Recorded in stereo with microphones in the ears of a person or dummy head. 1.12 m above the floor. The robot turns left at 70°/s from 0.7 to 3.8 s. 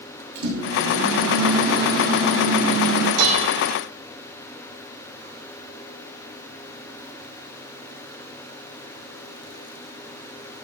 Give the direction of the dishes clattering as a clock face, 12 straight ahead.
3 o'clock.